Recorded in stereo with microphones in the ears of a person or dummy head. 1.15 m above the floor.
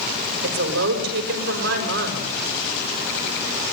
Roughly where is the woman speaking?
Right.